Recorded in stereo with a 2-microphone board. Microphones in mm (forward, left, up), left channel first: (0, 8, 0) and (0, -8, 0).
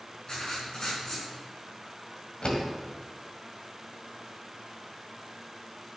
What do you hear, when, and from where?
0.3 s writing: 45° left (ahead or behind), 5 m
2.4 s a door slam: 65° left (ahead or behind), 1.9 m